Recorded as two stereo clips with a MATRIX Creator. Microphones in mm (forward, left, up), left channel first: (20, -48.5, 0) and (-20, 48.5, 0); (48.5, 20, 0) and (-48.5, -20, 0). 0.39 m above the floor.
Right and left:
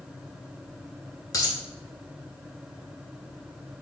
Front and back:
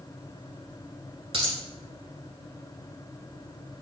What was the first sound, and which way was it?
A dropped coin, 125° right.